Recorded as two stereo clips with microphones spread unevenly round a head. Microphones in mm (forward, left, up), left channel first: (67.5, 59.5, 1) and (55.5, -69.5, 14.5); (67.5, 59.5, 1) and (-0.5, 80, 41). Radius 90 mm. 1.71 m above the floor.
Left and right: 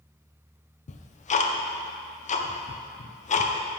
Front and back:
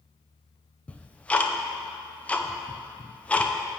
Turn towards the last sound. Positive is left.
turn(degrees=55)